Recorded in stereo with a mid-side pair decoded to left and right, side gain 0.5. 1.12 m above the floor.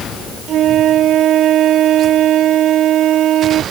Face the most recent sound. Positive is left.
turn(degrees=-60)